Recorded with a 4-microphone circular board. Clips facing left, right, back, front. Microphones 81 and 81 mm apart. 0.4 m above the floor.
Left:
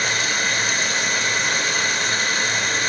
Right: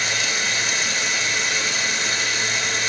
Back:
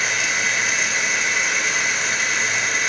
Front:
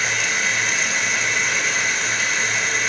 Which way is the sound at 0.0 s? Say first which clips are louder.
Left 2 dB, even; 90° left.